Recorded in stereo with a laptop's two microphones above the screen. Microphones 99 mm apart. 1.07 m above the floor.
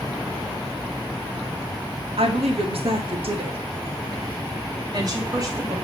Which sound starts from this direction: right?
A woman speaking, at 2.2 s.